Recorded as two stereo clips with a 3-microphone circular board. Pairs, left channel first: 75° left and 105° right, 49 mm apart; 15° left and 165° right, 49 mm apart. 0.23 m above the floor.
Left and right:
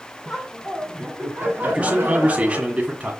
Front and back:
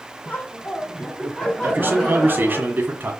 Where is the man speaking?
155° right, 1.6 m.